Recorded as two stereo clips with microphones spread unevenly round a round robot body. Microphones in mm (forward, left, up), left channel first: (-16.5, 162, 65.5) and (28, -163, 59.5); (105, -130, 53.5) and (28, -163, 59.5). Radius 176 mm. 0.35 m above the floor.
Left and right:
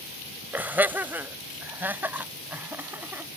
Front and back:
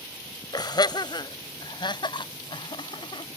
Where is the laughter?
Straight ahead.